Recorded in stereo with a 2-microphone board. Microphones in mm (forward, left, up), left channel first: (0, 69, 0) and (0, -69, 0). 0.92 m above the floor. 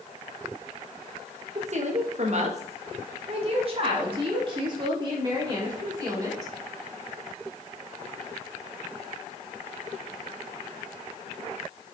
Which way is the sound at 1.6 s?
50° right (ahead or behind).